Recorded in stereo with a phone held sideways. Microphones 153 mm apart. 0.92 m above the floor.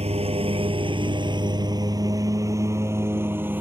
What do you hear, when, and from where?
0.0 s a lawn mower: 45° right (ahead or behind); by 3.6 s 15° right (ahead or behind)